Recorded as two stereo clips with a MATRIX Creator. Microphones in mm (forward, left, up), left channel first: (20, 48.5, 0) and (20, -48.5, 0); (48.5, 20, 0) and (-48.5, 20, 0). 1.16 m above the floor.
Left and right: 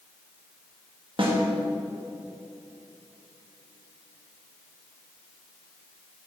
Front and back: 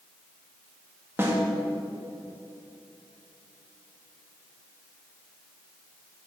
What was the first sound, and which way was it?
A snare drum, 115° right.